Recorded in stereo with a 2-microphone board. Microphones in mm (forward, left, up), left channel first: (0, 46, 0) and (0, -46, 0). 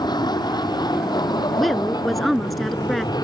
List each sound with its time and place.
0.0 s an aircraft: 50° left (ahead or behind); by 3.2 s 45° left (ahead or behind)
1.6 s a woman speaking: centre (ahead or behind)